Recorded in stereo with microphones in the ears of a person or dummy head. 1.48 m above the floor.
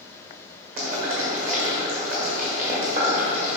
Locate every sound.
0.8 s boiling: 50° right (ahead or behind), 1.9 m